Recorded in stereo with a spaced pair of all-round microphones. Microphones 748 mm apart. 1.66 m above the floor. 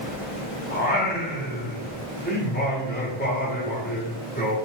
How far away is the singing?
About 0.8 m.